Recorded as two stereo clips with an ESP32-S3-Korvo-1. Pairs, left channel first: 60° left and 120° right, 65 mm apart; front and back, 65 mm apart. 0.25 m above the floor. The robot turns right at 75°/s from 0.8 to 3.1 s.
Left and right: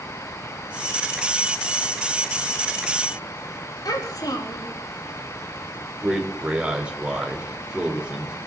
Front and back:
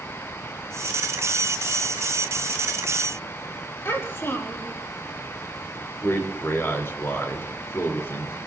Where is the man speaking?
50° right, 4 m.